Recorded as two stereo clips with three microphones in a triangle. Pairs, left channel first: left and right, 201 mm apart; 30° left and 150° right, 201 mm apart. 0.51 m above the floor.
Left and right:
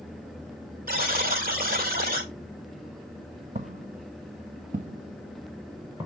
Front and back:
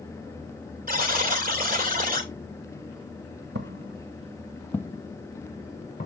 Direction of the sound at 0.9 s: 120° right.